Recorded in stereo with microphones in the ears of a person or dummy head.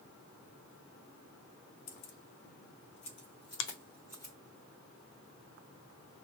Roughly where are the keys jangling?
Left.